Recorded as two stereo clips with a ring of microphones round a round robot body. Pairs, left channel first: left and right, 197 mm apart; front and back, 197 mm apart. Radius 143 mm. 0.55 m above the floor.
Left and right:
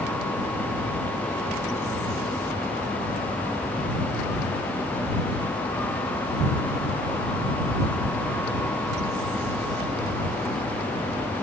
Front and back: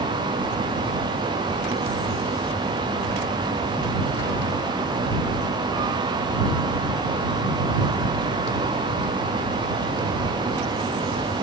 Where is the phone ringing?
I don't hear a phone ringing.